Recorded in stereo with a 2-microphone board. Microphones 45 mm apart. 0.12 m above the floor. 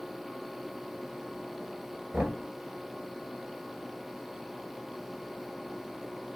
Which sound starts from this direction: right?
Knocking, at 2.1 s.